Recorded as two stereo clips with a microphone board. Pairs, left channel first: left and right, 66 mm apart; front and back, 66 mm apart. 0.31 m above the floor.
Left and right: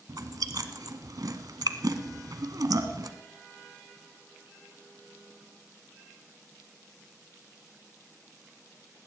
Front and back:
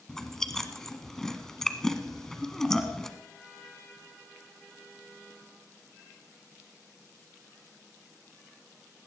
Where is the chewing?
80° right, 1.4 m.